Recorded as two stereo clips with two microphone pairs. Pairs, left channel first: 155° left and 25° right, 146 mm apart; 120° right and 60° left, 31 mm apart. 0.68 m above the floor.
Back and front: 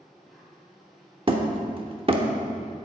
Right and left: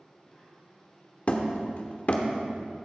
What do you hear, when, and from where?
0.0 s an insect: 115° right, 1.8 m
1.3 s hammering: 80° right, 0.9 m